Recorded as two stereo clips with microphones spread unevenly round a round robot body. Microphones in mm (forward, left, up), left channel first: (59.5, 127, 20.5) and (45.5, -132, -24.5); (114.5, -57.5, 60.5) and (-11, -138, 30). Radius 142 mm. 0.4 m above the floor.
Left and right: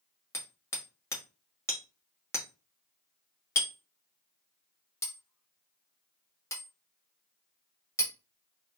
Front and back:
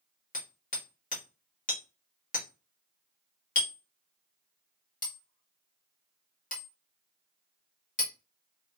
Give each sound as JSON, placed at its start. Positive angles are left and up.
{"t": 0.3, "sound": "hammering", "azimuth_deg": 5, "distance_m": 1.5}